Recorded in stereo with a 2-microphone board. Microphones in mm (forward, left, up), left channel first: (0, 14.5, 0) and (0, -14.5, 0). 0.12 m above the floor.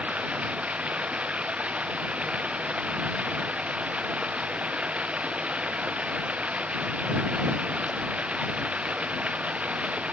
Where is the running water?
55° right (ahead or behind).